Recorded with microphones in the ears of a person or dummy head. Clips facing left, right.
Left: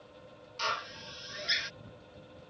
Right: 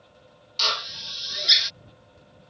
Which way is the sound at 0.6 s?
55° right (ahead or behind).